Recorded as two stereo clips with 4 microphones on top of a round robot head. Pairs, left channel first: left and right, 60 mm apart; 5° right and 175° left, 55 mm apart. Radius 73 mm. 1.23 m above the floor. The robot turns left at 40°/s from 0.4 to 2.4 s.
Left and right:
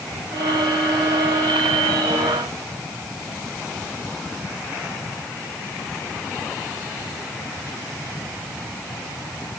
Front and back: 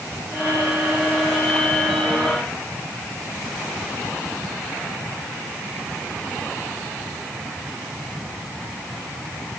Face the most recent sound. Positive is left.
No sound to turn to.